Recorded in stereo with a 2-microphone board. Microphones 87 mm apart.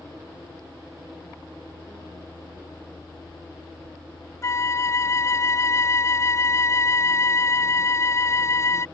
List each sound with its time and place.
4.4 s a flute: 35° left (ahead or behind)